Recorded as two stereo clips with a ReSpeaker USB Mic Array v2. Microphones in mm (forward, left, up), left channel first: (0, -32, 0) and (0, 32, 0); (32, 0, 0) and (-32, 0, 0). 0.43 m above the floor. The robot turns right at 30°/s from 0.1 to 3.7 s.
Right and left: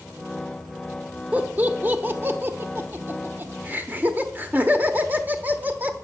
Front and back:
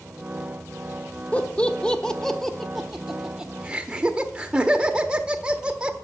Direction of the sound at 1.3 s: 50° left.